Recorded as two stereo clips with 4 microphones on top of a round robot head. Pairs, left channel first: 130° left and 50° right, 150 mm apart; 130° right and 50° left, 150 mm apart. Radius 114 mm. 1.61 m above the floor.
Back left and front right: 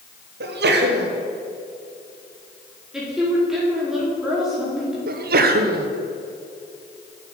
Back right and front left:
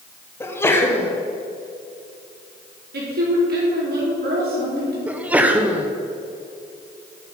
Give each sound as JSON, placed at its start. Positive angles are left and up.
{"t": 0.4, "sound": "a sneeze", "azimuth_deg": -55, "distance_m": 1.5}
{"t": 2.9, "sound": "a woman speaking", "azimuth_deg": 35, "distance_m": 4.5}
{"t": 5.1, "sound": "a sneeze", "azimuth_deg": -30, "distance_m": 1.0}